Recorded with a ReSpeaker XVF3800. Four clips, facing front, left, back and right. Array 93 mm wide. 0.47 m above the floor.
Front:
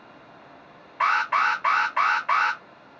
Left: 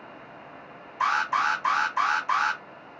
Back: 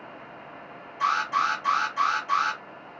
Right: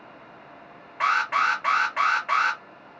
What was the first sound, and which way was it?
An alarm, 40° right.